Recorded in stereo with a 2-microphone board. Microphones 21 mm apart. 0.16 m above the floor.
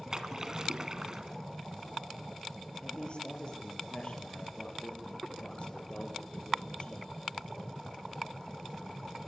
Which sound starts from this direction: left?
A man speaking, at 2.8 s.